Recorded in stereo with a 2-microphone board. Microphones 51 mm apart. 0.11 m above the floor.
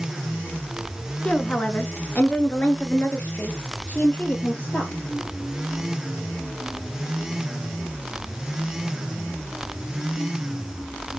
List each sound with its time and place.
1.2 s a woman speaking: 25° left (ahead or behind), 1.2 m; by 4.9 s 35° left (ahead or behind), 2.5 m